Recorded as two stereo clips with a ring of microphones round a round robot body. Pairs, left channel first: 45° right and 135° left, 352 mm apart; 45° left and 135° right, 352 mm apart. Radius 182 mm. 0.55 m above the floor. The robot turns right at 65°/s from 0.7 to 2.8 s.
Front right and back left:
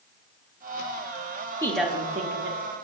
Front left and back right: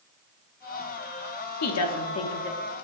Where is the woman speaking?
35° left, 0.8 m; by 2.6 s 100° left, 0.8 m.